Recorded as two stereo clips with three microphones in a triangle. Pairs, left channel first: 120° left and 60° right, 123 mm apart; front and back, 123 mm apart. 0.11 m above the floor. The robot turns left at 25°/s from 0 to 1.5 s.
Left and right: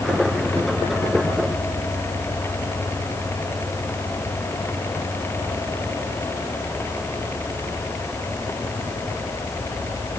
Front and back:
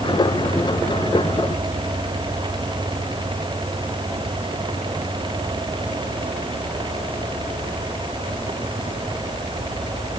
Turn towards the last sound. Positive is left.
No sound to turn to.